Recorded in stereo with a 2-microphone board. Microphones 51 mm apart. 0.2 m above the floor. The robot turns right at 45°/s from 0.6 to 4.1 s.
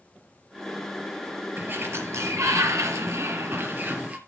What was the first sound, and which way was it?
A sliding door, 140° right.